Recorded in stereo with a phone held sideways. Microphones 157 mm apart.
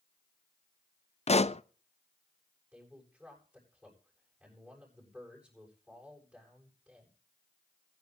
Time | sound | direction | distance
1.3 | a pop | 45° left (ahead or behind) | 0.6 m
2.7 | a man speaking | 5° right (ahead or behind) | 8 m